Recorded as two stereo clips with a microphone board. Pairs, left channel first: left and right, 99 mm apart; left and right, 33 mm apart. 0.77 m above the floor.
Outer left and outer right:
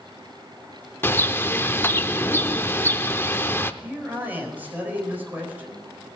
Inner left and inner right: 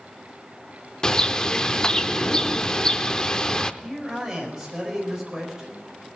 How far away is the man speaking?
About 4.5 m.